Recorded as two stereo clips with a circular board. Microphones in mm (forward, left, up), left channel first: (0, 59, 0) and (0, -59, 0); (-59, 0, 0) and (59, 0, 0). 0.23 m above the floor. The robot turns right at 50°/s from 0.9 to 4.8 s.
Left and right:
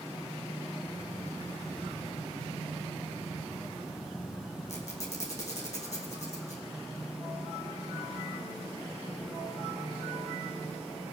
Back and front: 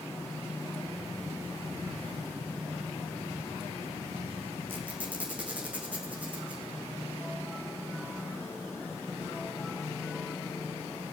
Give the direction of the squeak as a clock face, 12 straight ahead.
10 o'clock.